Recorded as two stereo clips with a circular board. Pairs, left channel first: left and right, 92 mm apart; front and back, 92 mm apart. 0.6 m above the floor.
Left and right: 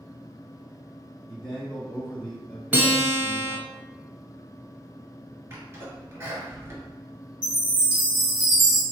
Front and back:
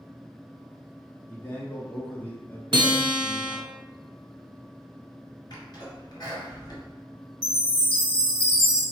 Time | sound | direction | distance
1.3 | a man speaking | 25° left | 0.8 m
2.7 | a guitar | 155° right | 0.7 m
5.5 | a sneeze | 30° right | 2 m
7.4 | a chime | 115° right | 1.9 m